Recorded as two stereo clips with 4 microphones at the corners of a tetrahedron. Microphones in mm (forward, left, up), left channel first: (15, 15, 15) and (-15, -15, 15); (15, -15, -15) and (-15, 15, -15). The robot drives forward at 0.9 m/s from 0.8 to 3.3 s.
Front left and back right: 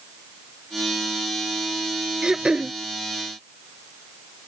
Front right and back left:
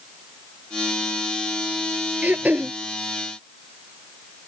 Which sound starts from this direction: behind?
Throat clearing, at 2.2 s.